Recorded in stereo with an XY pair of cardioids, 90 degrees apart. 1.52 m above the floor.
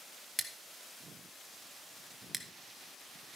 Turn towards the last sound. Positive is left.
turn(degrees=-5)